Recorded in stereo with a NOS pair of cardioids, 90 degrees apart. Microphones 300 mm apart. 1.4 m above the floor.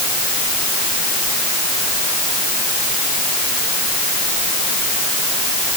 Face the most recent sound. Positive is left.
No sound to turn to.